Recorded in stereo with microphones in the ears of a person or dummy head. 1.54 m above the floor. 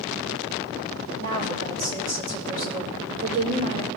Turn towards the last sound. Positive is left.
turn(degrees=-60)  # may be behind; listen again after turning